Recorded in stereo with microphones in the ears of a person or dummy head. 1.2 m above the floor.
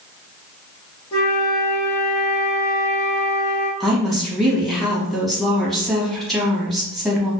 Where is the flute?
20° left (ahead or behind), 0.6 m.